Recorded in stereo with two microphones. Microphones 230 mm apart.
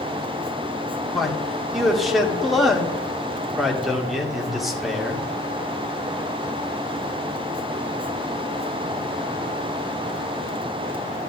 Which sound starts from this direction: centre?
A man speaking, at 1.1 s.